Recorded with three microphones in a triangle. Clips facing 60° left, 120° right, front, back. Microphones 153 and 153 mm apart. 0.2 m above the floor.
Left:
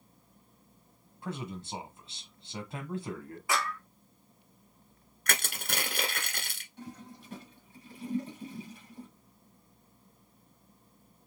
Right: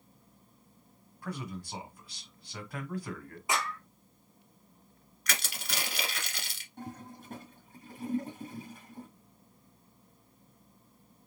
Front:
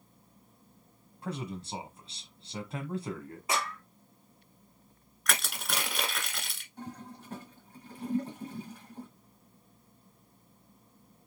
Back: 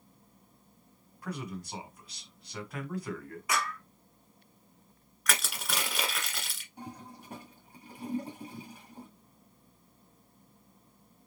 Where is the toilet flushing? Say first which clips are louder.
Right 2 dB, front 2 dB; 110° right, 2 m.